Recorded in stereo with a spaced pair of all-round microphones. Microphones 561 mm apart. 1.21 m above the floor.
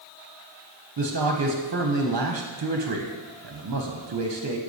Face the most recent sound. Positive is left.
turn(degrees=-45)  # may be behind; listen again after turning